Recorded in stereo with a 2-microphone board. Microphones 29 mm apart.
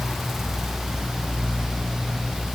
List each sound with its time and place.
Only background noise.